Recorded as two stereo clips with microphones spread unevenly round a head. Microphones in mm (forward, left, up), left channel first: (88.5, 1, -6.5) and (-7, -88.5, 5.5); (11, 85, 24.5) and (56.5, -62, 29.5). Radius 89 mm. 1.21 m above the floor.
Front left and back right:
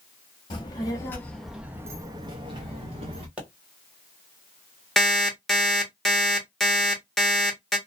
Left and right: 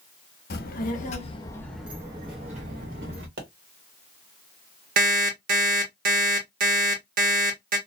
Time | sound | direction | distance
0.5 | a child speaking | 105° left | 0.8 m
3.4 | a pop | 55° right | 1.4 m
5.0 | an alarm clock | 45° right | 1.1 m